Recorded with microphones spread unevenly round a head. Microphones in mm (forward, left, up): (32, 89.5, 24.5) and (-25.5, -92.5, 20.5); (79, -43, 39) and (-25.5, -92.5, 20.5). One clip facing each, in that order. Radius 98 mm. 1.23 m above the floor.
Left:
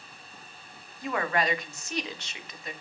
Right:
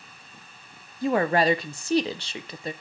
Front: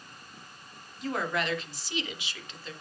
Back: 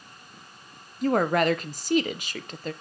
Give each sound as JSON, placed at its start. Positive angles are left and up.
{"t": 1.0, "sound": "a woman speaking", "azimuth_deg": -160, "distance_m": 0.7}